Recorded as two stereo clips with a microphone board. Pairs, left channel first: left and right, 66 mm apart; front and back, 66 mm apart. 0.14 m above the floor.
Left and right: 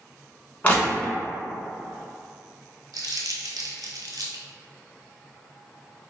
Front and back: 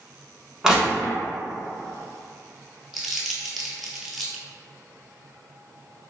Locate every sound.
0.6 s crushing: 115° left, 1.1 m
2.9 s crumpling: 90° right, 0.7 m